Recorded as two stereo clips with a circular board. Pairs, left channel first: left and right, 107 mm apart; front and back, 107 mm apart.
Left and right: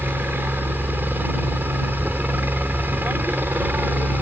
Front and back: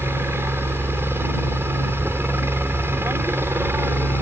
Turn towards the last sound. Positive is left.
turn(degrees=-140)